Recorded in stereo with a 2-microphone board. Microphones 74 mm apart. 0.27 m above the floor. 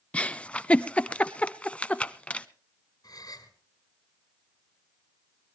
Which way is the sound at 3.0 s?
60° left (ahead or behind).